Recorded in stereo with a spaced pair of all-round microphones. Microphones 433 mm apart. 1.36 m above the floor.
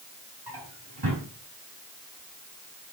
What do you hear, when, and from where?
0.5 s a drawer: 60° right (ahead or behind), 5 m